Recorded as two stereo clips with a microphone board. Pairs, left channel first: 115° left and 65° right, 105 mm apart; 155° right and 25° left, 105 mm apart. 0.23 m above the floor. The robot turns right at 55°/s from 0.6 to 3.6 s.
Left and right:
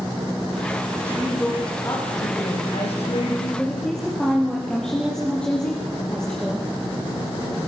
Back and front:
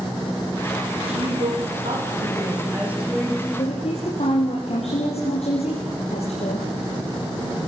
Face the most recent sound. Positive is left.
turn(degrees=-165)